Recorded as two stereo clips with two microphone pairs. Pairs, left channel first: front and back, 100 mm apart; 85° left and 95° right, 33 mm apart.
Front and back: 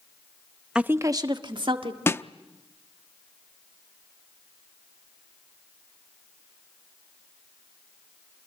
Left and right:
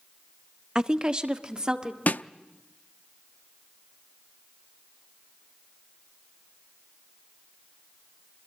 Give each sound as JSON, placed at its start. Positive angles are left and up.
{"t": 0.8, "sound": "a woman speaking", "azimuth_deg": -115, "distance_m": 0.8}
{"t": 2.1, "sound": "a snare drum", "azimuth_deg": 65, "distance_m": 0.6}